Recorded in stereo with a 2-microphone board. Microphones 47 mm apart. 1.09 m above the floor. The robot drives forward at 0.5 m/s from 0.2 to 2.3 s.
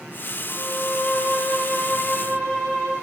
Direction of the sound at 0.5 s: 50° left (ahead or behind).